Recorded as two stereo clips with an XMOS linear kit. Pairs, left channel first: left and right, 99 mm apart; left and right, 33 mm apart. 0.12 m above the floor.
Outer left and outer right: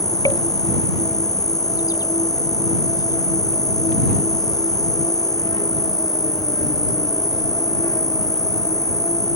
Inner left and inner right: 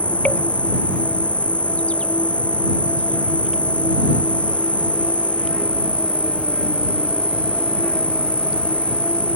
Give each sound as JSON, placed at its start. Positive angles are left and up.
{"t": 0.0, "sound": "an insect", "side_deg": 35}